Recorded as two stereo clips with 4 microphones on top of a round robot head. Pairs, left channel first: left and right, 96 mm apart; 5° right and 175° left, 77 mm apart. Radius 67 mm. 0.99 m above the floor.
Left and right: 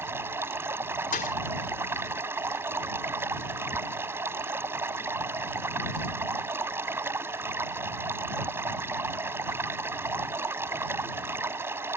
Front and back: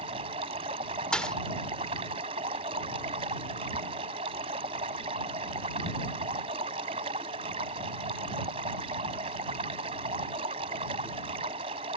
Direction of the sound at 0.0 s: 155° right.